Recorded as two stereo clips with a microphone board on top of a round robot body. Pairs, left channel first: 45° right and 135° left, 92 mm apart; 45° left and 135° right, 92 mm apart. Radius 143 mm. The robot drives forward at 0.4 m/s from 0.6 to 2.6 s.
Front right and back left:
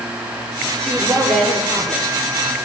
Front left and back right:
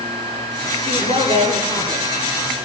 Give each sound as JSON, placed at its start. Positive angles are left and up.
{"t": 0.8, "sound": "a woman speaking", "azimuth_deg": -125, "distance_m": 8.5}